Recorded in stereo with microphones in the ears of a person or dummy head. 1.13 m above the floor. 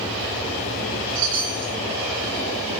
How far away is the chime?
About 6 m.